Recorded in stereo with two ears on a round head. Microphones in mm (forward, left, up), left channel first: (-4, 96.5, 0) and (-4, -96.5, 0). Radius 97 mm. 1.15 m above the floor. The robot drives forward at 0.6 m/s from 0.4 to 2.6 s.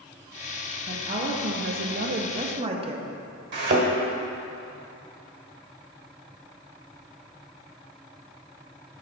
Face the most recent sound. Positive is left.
turn(degrees=-55)  # may be behind; listen again after turning